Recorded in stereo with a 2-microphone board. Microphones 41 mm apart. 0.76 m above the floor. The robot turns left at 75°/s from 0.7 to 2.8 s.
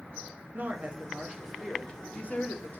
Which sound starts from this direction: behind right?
A woman speaking, at 0.5 s.